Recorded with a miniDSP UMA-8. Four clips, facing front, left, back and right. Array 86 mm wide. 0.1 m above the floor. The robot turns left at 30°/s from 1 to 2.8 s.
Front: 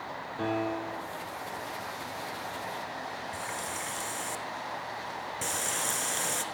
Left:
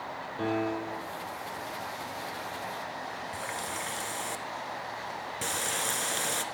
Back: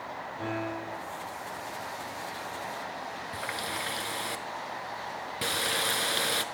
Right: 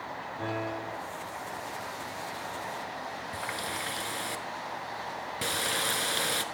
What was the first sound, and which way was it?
A piano, 45° left.